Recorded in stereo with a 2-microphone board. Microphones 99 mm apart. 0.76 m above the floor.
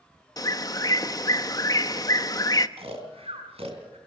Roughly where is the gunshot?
I don't hear a gunshot.